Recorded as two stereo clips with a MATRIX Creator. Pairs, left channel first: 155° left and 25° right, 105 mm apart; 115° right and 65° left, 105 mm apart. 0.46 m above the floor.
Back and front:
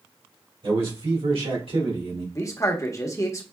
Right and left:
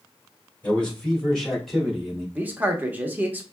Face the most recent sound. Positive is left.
turn(degrees=130)